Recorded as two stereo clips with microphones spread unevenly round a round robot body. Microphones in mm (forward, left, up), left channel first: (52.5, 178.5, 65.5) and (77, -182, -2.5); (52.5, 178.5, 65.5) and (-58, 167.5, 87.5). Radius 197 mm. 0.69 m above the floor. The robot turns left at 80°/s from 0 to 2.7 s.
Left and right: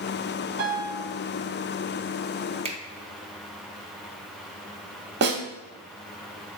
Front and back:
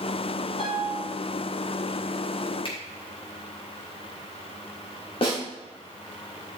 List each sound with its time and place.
0.6 s a piano: 100° right, 1.7 m; by 1.0 s 135° right, 1.7 m
2.6 s a finger snap: 20° right, 1.4 m
5.2 s a snare drum: 30° right, 1.5 m